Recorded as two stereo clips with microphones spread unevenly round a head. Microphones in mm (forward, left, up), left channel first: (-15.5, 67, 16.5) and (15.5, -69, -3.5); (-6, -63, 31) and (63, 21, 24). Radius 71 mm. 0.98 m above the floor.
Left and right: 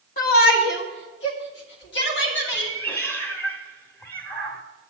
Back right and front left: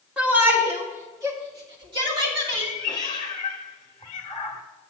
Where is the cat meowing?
170° left, 0.9 m.